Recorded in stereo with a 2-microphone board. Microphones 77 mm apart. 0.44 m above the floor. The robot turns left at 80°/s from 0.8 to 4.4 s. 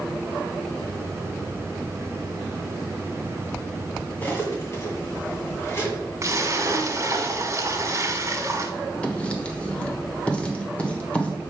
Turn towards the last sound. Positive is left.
turn(degrees=15)  # may be behind; listen again after turning